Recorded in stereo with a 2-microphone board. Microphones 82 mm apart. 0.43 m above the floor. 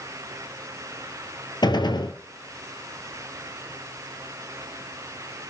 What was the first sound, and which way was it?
A gunshot, 65° left (ahead or behind).